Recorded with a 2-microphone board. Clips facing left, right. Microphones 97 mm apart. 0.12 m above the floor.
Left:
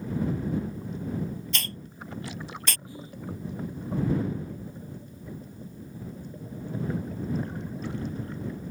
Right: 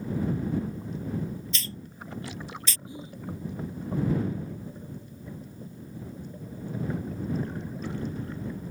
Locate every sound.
1.5 s a hiss: 60° left (ahead or behind)
2.9 s whispering: 20° right (ahead or behind)